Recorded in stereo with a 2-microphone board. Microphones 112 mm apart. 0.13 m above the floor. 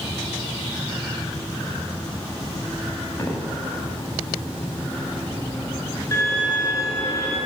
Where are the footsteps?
25° left (ahead or behind), 2 m.